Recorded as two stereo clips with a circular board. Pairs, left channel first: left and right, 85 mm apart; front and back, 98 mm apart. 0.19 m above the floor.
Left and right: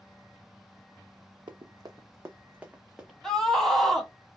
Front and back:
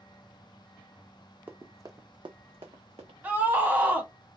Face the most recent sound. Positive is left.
turn(degrees=165)